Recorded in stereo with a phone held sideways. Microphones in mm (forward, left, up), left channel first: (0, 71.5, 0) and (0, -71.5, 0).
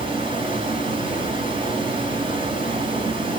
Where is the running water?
40° right (ahead or behind), 4 m.